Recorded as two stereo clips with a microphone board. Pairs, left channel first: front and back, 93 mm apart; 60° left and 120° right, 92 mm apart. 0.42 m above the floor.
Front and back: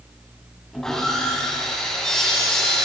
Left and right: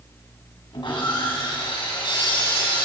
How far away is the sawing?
About 2.5 m.